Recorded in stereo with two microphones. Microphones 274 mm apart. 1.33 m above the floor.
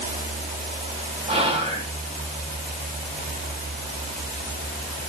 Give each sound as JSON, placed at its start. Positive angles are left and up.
{"t": 1.3, "sound": "whispering", "side_deg": -20, "distance_m": 3.0}